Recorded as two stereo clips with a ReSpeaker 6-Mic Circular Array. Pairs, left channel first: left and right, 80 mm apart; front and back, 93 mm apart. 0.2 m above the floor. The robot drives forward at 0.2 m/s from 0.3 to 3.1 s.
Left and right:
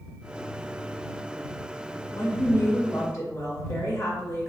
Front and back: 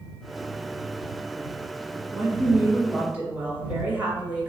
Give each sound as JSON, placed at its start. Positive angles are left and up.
{"t": 2.1, "sound": "a woman speaking", "azimuth_deg": 105, "distance_m": 1.4}